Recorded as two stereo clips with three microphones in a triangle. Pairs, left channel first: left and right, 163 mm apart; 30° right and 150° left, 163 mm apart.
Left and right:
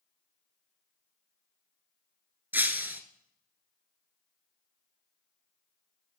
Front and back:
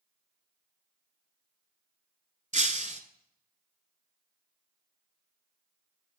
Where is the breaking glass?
165° right, 0.7 m.